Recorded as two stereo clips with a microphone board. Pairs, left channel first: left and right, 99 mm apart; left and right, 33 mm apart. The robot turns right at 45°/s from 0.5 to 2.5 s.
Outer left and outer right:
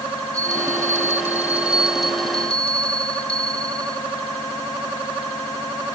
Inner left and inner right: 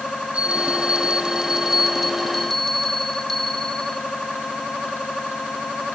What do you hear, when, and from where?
0.3 s a bell: 70° right, 0.9 m; by 4.0 s 20° left, 0.9 m